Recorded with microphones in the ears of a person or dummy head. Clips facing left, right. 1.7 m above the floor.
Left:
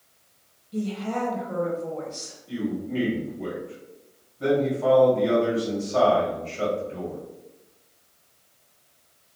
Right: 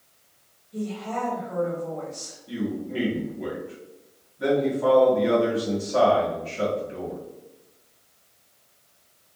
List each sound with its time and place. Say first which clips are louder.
0.7 s a woman speaking: left 2 dB; 45° left (ahead or behind), 1.2 m
2.5 s a man speaking: left 1 dB; 20° right (ahead or behind), 1.6 m